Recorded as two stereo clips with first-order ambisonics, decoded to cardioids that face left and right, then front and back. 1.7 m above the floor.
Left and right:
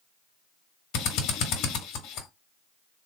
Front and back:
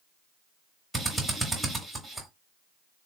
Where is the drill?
90° left, 1.0 m.